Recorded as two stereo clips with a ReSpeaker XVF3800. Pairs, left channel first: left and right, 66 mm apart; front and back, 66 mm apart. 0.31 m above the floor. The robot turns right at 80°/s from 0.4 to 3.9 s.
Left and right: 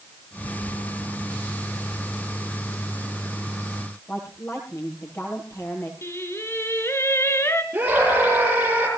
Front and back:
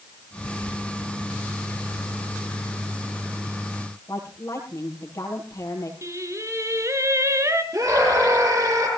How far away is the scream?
About 9.5 m.